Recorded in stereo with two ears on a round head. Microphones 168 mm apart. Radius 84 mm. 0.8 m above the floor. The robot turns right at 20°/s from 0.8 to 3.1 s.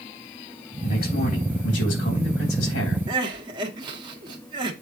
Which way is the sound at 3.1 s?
25° right (ahead or behind).